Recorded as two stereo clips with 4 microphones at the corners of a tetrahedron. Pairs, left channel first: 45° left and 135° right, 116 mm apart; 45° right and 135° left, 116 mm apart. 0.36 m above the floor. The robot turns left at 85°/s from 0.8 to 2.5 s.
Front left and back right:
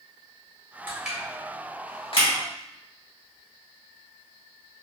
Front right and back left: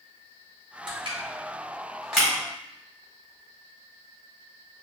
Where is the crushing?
160° left, 1.5 m; by 2.3 s 40° left, 1.5 m.